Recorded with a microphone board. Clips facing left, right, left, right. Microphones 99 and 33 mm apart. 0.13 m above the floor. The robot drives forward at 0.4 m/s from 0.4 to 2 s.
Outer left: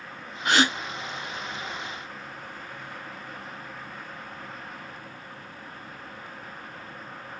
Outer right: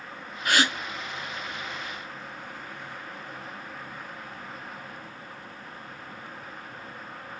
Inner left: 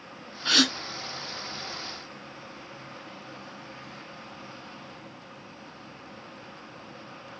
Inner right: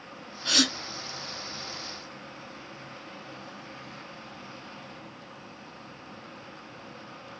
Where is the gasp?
25° left (ahead or behind), 0.7 m.